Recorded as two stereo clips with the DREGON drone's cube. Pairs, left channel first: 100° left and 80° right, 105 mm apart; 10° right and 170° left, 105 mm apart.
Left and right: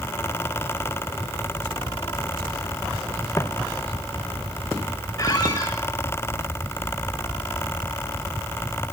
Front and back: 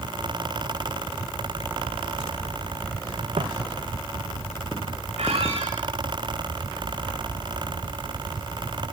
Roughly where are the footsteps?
Behind left.